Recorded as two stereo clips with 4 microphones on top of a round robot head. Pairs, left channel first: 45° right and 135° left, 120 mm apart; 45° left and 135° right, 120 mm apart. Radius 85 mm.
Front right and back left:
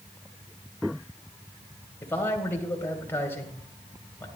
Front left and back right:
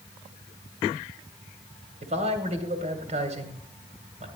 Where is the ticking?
No ticking in this recording.